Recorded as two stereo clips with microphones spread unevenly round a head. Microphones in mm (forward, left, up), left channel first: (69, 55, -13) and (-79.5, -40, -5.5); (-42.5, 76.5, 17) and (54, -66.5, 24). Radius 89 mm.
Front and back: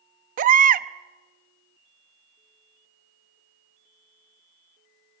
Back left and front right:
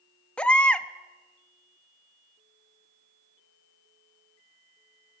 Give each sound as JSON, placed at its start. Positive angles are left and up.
{"t": 0.4, "sound": "a baby crying", "azimuth_deg": -150, "distance_m": 0.6}